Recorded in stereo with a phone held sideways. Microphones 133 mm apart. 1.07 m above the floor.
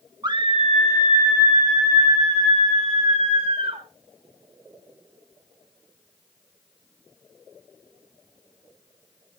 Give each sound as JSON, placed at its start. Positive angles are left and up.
{"t": 0.2, "sound": "a scream", "side_deg": -30, "distance_m": 1.4}